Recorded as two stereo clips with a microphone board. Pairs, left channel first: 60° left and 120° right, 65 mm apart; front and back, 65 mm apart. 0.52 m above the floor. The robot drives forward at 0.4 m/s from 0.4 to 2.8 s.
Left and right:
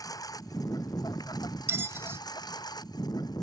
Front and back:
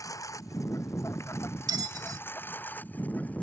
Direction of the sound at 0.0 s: 35° left.